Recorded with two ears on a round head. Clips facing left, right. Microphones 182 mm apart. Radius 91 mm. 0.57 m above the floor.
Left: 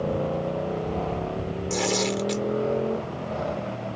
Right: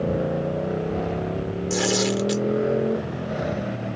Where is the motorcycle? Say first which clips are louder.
Right 2 dB; 15° right (ahead or behind); by 4.0 s 20° right (ahead or behind).